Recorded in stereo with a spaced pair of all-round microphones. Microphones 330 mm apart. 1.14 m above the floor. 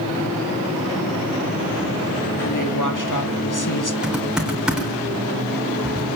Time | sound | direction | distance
2.4 | a woman speaking | 60° left (ahead or behind) | 3 m
4.0 | typing on a keyboard | centre (ahead or behind) | 4 m